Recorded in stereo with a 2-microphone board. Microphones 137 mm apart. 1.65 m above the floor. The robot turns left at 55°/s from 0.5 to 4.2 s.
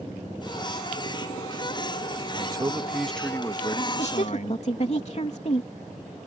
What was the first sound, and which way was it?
A man speaking, 140° right.